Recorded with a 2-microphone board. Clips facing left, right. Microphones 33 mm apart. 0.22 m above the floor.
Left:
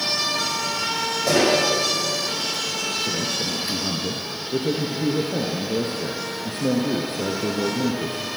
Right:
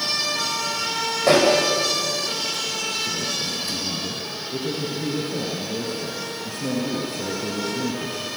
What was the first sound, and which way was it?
A pop, 40° right (ahead or behind).